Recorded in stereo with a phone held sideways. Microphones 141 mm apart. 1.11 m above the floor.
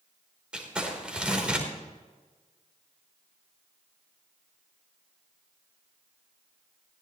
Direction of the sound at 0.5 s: 5° right (ahead or behind).